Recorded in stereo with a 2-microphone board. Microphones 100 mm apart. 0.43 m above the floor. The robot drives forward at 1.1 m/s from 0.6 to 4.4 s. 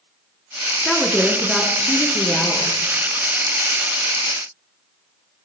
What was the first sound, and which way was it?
A woman speaking, 5° left (ahead or behind).